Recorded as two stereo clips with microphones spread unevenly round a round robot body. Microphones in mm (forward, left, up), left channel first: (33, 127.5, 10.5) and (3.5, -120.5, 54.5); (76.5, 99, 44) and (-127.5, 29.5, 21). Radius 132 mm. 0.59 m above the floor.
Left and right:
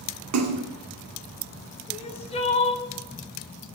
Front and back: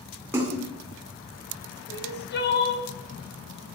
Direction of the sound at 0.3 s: 85° right.